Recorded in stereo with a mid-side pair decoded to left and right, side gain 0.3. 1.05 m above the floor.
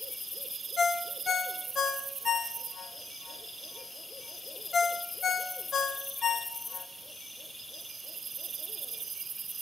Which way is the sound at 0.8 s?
70° left.